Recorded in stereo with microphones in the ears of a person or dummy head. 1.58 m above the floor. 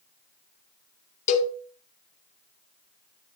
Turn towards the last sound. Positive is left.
turn(degrees=45)  # may be behind; listen again after turning